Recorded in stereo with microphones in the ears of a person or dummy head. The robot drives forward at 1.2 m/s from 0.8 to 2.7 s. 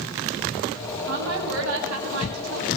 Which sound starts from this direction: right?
A woman speaking, at 1.1 s.